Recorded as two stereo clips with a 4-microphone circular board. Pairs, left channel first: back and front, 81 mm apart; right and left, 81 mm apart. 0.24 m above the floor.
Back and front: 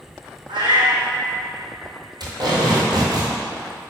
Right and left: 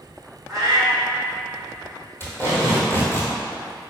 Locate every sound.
0.5 s a cat meowing: 5° right, 1.7 m
2.2 s tape being pulled: 30° right, 1.5 m